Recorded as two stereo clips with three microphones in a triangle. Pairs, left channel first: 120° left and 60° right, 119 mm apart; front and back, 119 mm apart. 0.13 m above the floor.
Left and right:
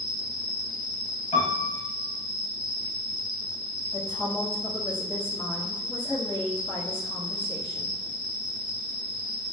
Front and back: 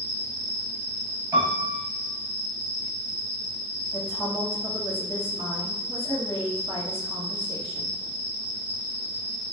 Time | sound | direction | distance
0.0 | an insect | 60° right | 1.0 m
1.3 | a piano | 115° left | 1.4 m
3.9 | a woman speaking | 130° left | 1.2 m